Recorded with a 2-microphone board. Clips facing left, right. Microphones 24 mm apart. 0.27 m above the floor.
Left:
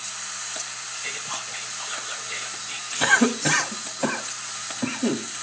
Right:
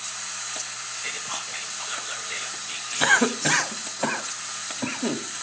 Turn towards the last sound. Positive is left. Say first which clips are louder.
# left 1 dB
turn(degrees=-10)  # may be behind; listen again after turning